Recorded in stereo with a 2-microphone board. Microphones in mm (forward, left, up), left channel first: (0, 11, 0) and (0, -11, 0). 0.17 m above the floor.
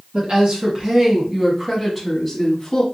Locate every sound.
0.1 s a woman speaking: 45° right (ahead or behind), 1.5 m; by 2.8 s 20° left (ahead or behind), 1.2 m